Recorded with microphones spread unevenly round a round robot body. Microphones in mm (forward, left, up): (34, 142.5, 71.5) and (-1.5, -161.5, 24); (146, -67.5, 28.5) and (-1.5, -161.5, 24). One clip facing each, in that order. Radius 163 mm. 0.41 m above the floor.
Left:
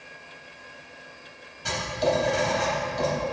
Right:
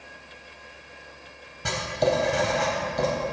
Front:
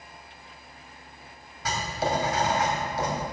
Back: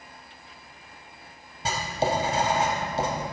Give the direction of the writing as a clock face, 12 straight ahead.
3 o'clock.